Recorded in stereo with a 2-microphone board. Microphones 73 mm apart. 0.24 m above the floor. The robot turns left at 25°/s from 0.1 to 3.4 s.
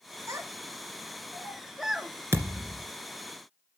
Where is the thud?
35° right (ahead or behind), 1.9 m; by 2.9 s 45° right (ahead or behind), 1.9 m.